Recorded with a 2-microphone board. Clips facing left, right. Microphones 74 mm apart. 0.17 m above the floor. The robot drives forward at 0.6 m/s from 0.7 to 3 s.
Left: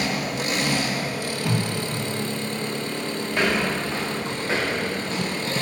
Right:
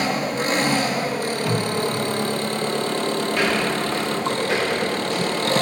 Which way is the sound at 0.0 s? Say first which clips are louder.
Right 4 dB; 40° right (ahead or behind).